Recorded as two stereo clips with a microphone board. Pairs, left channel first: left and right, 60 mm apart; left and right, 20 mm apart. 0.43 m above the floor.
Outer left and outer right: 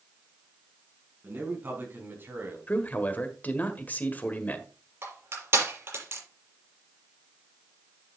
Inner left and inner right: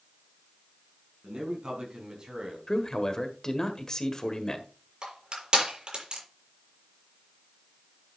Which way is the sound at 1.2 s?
35° right (ahead or behind).